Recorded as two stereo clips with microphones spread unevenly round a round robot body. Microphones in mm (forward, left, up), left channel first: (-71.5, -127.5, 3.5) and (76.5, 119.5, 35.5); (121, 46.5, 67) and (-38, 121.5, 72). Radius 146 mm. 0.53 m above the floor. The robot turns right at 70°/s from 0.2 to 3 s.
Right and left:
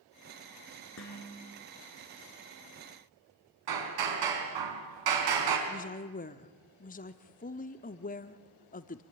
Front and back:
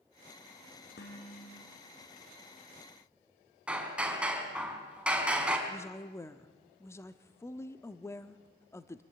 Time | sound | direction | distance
1.0 | dishes clattering | 75° right | 5 m
3.7 | hammering | 70° left | 4.5 m
5.7 | a woman speaking | 90° right | 0.8 m